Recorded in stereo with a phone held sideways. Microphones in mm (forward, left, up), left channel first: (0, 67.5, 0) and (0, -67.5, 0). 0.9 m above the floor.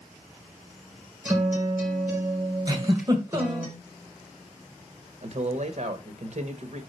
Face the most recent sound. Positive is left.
turn(degrees=-60)  # may be behind; listen again after turning